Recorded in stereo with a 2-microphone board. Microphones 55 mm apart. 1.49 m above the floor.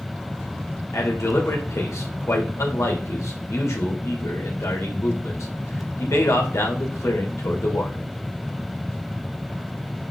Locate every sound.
0.9 s a man speaking: 65° left (ahead or behind), 2.5 m